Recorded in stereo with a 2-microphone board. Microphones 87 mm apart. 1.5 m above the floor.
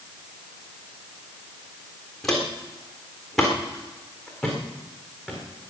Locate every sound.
2.2 s footsteps: 5° left (ahead or behind), 3.5 m; by 5.7 s 5° right (ahead or behind), 5.5 m